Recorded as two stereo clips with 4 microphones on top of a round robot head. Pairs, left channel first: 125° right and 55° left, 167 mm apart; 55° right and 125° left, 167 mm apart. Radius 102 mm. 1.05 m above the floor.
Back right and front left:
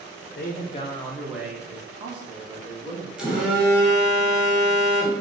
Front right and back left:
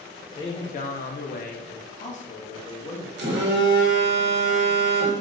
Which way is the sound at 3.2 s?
140° left.